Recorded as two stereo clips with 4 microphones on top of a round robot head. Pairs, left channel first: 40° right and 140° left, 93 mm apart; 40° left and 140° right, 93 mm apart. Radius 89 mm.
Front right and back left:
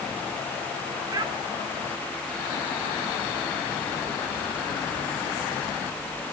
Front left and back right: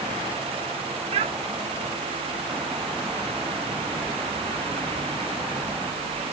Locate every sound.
1.1 s a child speaking: 170° right, 1.1 m